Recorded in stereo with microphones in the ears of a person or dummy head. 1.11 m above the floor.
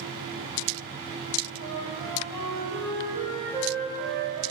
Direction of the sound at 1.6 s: 40° left (ahead or behind).